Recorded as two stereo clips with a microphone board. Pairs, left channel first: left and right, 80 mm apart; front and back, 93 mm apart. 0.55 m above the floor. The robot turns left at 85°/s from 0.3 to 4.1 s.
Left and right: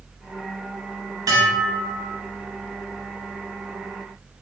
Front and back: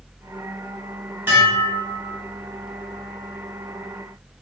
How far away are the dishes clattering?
About 1.1 m.